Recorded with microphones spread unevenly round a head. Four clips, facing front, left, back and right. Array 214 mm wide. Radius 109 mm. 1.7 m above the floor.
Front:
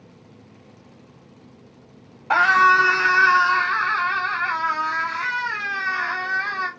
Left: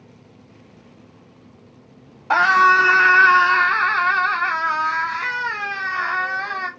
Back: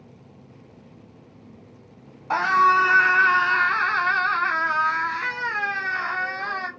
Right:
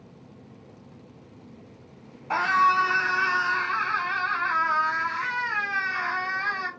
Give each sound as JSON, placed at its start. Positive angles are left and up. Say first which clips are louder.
{"t": 2.3, "sound": "a scream", "louder": "left 7 dB, front 2 dB", "azimuth_deg": 60, "distance_m": 1.2}